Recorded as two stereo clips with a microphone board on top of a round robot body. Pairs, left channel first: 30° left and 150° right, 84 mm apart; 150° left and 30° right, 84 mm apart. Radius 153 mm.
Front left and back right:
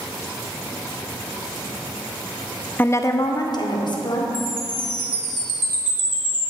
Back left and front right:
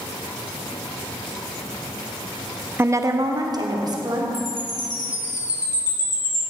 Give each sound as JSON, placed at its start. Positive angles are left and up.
{"t": 2.8, "sound": "a woman speaking", "azimuth_deg": -10, "distance_m": 0.7}
{"t": 4.3, "sound": "a chime", "azimuth_deg": -160, "distance_m": 2.5}